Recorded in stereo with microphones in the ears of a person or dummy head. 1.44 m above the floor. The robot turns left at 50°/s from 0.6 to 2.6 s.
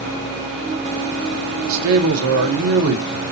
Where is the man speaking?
70° right, 0.8 m; by 3.3 s 120° right, 0.8 m.